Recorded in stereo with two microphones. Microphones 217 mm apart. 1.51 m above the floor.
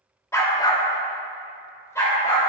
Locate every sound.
0.3 s a dog barking: 15° left (ahead or behind), 1.1 m; by 2.5 s 10° left (ahead or behind), 3 m